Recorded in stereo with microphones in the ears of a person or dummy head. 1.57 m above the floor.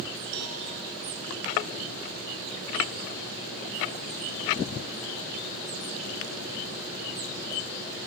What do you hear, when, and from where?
0.3 s a cowbell: 60° right (ahead or behind), 2.5 m